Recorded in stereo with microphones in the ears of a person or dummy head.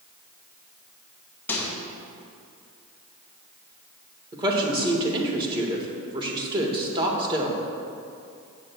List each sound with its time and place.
1.5 s a microwave: 15° left (ahead or behind), 2 m
4.3 s a woman speaking: 20° right (ahead or behind), 1.7 m